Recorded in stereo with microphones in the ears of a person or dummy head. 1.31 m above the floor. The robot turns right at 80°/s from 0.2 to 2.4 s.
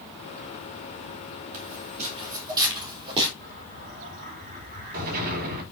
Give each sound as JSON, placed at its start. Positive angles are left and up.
{"t": 1.5, "sound": "footsteps", "side_deg": -50, "distance_m": 2.0}
{"t": 3.4, "sound": "an explosion", "side_deg": -50, "distance_m": 3.5}